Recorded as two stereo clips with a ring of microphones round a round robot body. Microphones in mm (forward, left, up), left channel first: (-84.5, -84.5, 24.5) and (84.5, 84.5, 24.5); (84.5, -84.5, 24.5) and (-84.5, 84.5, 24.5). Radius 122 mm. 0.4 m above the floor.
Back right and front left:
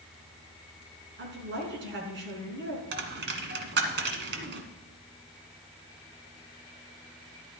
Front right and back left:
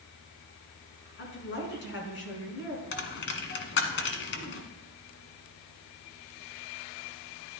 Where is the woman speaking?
Straight ahead, 4 m.